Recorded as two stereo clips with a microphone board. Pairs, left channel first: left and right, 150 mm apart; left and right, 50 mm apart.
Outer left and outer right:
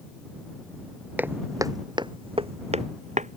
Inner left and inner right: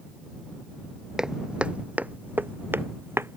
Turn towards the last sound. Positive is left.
turn(degrees=-55)  # may be behind; listen again after turning